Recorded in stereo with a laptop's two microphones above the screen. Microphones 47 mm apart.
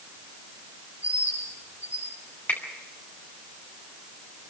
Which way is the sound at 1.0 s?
75° left (ahead or behind).